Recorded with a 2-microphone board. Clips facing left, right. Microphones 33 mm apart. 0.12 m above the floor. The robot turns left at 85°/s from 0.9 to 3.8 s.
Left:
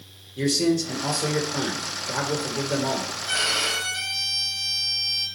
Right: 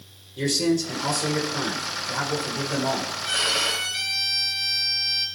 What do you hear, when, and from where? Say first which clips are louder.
0.4 s a man speaking: left 1 dB; 175° left, 2.5 m; by 3.1 s 15° right, 2.5 m
3.2 s a violin: right 1 dB; 80° right, 4 m; by 5.3 s 130° right, 4 m